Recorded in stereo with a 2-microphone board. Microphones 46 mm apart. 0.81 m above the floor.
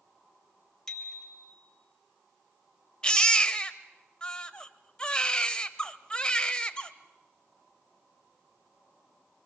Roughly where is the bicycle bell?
Centre.